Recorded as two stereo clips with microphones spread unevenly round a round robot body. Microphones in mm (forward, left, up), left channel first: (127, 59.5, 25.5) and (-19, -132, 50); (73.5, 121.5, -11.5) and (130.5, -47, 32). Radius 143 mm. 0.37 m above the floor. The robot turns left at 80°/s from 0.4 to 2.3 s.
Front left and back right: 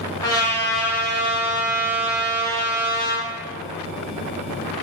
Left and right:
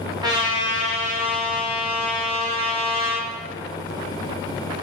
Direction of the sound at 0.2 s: Straight ahead.